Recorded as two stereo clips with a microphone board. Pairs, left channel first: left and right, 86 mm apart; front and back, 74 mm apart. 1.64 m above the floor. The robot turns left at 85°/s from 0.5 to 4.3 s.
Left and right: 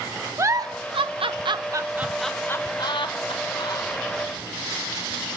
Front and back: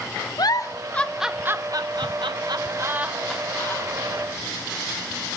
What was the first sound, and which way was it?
A giggle, 35° right.